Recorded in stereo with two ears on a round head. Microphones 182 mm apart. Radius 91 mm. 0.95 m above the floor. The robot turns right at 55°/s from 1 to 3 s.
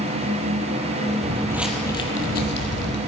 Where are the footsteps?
35° right (ahead or behind), 1.3 m; by 3.0 s 60° left (ahead or behind), 2 m.